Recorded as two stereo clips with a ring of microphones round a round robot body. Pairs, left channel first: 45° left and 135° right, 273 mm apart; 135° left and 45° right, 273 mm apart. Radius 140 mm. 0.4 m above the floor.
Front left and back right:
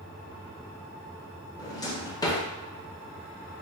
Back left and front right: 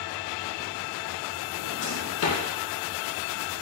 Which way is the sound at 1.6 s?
115° left.